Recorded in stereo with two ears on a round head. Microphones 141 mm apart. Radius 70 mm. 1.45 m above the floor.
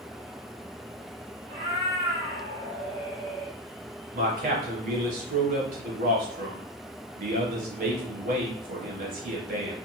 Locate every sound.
1.5 s a cat meowing: 40° right (ahead or behind), 1.8 m; by 3.5 s 5° left (ahead or behind), 1.4 m
4.1 s a man speaking: 55° right (ahead or behind), 1.1 m